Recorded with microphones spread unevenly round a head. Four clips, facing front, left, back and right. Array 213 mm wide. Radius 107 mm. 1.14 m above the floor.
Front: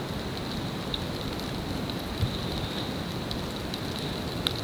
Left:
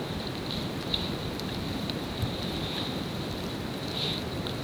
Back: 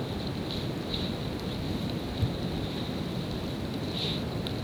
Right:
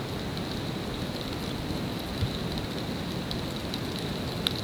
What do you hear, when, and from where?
Only background noise.